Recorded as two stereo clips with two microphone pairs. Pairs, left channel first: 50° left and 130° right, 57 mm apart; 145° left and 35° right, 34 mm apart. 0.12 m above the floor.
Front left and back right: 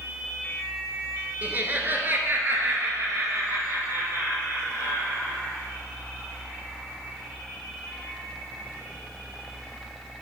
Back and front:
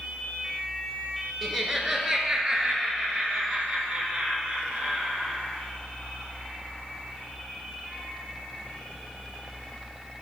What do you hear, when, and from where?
1.4 s laughter: 110° right, 1.2 m; by 5.4 s 85° right, 3 m